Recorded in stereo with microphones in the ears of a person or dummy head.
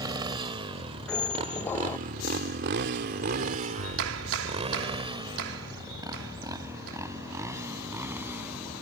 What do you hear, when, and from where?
0.0 s a motorcycle: 25° right (ahead or behind); by 8.8 s 15° right (ahead or behind)
1.1 s a squeak: 10° left (ahead or behind)
3.8 s a clap: 80° right